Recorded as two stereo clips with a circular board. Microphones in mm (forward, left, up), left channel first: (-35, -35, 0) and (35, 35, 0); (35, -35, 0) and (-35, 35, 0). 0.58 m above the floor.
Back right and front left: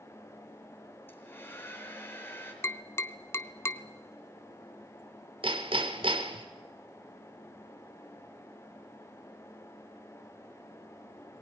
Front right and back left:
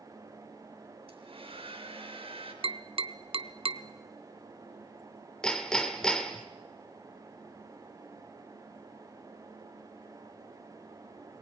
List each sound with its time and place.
1.1 s a hair dryer: 160° left, 4 m
2.6 s tapping: 160° left, 0.8 m
5.4 s hammering: 35° left, 1.8 m